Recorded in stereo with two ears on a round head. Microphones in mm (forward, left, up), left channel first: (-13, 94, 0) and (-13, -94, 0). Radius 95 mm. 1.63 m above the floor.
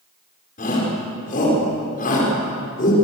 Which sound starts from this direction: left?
A shout, at 0.6 s.